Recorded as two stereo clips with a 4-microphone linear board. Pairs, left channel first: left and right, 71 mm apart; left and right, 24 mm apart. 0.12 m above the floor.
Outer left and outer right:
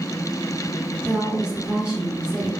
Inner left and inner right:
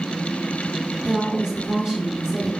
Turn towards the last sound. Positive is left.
turn(degrees=-15)  # may be behind; listen again after turning